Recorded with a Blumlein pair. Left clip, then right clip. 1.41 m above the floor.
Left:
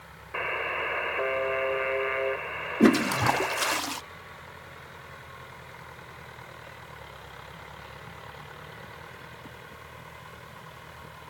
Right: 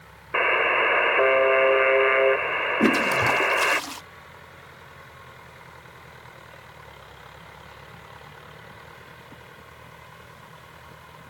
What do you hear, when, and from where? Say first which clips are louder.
0.3 s a buzzer: right 9 dB; 65° right
2.8 s a toilet flushing: even; 5° left